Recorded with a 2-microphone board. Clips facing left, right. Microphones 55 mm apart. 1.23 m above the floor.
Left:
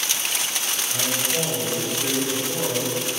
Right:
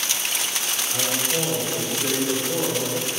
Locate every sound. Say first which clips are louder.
0.9 s a man speaking: right 1 dB; 5° right (ahead or behind), 5.5 m